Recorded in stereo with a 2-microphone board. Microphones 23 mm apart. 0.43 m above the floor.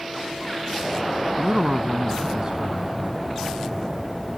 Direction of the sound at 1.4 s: 40° right (ahead or behind).